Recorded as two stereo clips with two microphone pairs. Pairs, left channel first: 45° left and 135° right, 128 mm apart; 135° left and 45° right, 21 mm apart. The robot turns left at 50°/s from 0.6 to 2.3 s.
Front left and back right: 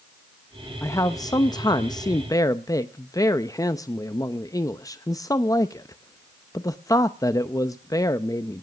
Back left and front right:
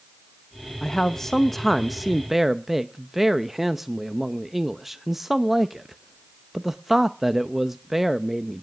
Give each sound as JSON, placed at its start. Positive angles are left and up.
{"t": 0.8, "sound": "a man speaking", "azimuth_deg": 90, "distance_m": 0.6}